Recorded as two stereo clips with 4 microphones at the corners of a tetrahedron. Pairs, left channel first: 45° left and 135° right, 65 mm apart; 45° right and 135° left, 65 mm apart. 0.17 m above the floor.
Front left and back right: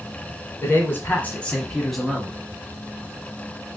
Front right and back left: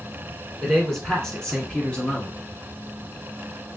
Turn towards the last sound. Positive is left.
turn(degrees=-75)